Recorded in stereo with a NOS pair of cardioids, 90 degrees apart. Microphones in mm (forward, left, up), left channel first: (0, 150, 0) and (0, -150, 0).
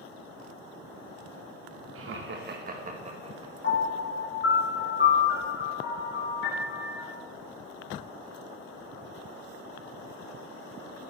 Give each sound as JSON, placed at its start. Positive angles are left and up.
{"t": 1.9, "sound": "laughter", "azimuth_deg": -50, "distance_m": 1.1}
{"t": 3.6, "sound": "a piano", "azimuth_deg": 40, "distance_m": 2.0}